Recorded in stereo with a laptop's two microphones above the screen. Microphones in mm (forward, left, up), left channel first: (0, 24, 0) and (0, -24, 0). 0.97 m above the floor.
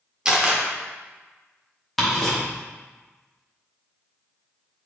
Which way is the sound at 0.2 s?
15° right (ahead or behind).